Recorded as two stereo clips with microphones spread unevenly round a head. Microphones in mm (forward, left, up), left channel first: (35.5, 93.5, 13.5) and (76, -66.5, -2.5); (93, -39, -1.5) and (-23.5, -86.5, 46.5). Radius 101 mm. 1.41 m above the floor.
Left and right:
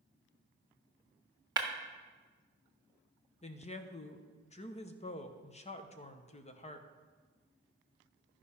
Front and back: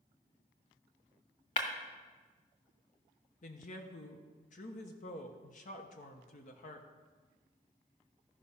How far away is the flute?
I don't hear a flute.